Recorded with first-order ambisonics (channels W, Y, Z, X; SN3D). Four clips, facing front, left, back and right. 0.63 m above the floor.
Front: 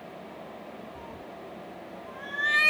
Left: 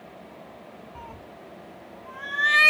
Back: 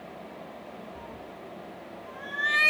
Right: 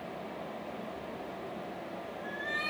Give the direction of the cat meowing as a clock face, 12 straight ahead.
9 o'clock.